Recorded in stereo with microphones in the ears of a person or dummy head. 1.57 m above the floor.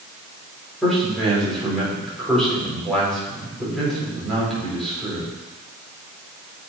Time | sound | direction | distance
0.8 | a man speaking | 5° left (ahead or behind) | 4.5 m